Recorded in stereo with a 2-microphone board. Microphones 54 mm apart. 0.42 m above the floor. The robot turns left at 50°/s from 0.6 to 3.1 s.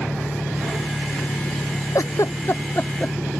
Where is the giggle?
80° left; by 3.1 s 20° left (ahead or behind).